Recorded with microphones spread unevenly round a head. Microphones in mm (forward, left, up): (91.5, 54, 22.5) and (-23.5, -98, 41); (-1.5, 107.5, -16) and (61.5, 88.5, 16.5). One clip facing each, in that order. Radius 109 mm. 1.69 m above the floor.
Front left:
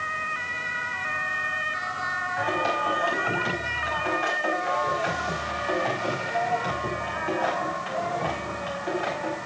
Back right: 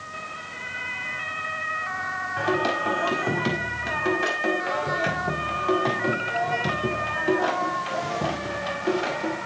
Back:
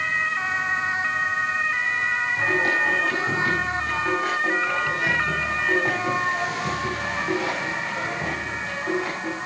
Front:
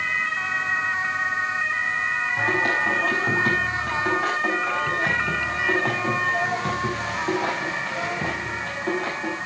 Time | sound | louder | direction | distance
2.4 | singing | back right 3 dB, even | 85° right | 5 m